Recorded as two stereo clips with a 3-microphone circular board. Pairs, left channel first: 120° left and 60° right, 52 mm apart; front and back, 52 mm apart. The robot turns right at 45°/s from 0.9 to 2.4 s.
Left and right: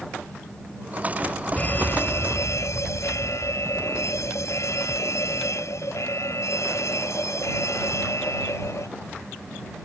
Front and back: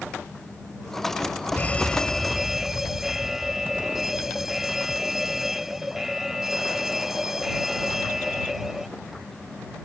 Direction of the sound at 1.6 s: 60° left.